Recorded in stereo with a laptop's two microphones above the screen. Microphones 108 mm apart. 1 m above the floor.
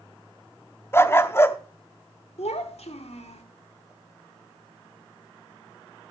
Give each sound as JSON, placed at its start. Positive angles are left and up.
{"t": 0.9, "sound": "a dog barking", "side_deg": 25, "distance_m": 0.6}
{"t": 2.4, "sound": "a child speaking", "side_deg": 75, "distance_m": 1.4}